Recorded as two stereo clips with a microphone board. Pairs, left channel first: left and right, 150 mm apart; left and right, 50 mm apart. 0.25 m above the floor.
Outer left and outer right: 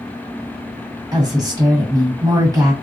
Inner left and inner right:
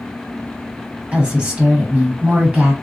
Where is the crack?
I don't hear a crack.